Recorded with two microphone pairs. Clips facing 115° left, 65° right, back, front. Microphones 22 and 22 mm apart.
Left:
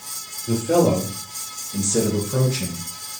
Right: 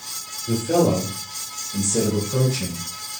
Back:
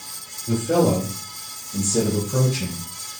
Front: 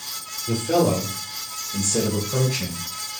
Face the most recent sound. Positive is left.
turn(degrees=30)